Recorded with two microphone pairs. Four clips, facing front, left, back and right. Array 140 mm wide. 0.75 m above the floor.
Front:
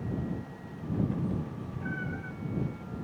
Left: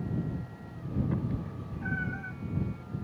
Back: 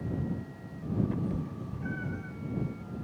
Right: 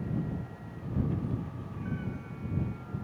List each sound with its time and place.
1.1 s a cat meowing: 100° left; by 2.3 s 75° left